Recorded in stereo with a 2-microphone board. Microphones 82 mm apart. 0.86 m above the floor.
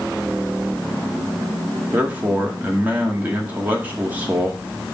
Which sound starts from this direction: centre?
A man speaking, at 1.9 s.